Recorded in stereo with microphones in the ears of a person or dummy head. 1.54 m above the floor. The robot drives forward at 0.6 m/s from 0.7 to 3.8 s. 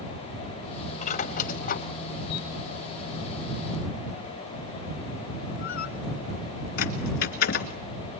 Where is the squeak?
40° left (ahead or behind), 1.7 m; by 7.8 s 55° left (ahead or behind), 1.3 m.